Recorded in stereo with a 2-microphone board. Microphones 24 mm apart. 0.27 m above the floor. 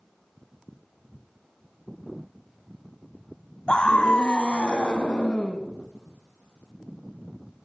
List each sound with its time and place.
3.7 s a scream: 45° left (ahead or behind), 1.8 m; by 5.6 s 55° left (ahead or behind), 3 m